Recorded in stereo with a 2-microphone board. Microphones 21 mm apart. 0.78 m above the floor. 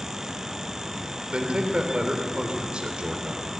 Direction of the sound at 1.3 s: 60° right (ahead or behind).